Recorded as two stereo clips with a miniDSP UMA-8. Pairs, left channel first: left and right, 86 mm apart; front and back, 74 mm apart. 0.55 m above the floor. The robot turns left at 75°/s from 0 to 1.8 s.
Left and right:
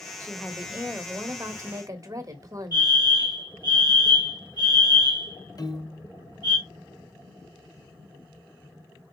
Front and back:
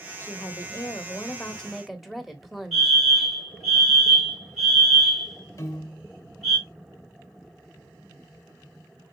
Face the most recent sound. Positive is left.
turn(degrees=45)